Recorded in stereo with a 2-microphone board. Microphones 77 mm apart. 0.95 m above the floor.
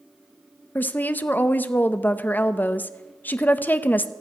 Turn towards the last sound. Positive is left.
turn(degrees=25)  # may be behind; listen again after turning